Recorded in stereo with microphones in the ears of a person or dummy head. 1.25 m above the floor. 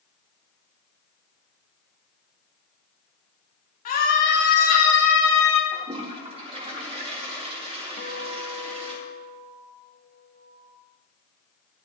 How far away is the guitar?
About 0.8 m.